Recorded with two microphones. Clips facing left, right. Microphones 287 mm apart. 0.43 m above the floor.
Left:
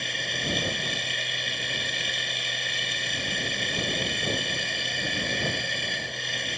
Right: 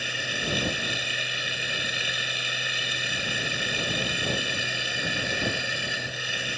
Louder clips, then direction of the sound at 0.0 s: Right 1 dB; 5° right (ahead or behind).